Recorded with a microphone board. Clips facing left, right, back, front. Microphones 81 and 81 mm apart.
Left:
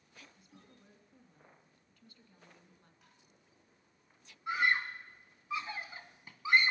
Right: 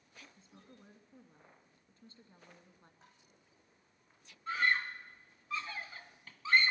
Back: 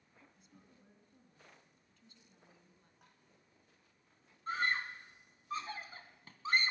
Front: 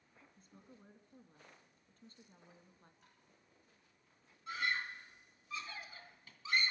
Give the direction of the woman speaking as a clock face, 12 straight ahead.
1 o'clock.